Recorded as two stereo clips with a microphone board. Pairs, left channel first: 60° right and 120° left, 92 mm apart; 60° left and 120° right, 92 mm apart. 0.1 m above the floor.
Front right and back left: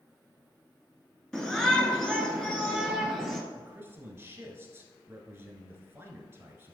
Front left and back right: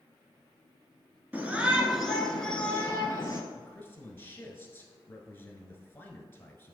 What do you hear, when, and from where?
1.3 s a shout: 140° right, 1.1 m; by 3.4 s 20° left, 1.3 m
3.5 s a man speaking: 95° left, 1.2 m